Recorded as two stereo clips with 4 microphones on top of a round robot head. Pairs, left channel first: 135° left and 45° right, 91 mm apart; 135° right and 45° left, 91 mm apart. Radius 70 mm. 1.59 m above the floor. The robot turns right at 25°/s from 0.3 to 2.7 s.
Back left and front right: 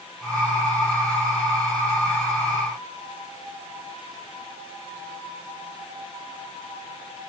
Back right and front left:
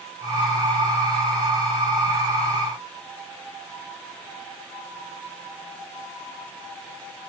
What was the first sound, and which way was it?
Only background noise.